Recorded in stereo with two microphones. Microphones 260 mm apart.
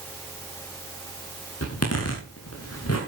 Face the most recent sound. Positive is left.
turn(degrees=65)  # may be behind; listen again after turning